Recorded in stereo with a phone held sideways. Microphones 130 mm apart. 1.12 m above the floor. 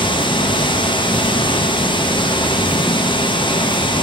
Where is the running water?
35° left (ahead or behind), 0.7 m.